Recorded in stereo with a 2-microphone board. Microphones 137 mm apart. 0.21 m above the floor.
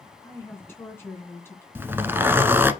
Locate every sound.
0.2 s a woman speaking: 15° left (ahead or behind), 2.5 m
1.8 s a zipper: 15° right (ahead or behind), 1.0 m